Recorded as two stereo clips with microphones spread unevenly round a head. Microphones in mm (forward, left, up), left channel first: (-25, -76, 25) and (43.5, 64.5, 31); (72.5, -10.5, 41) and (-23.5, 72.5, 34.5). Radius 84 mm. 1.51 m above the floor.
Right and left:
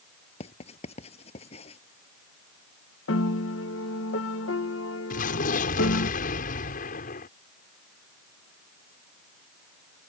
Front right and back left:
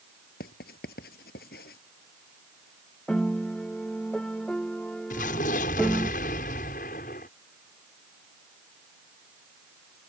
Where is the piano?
125° right.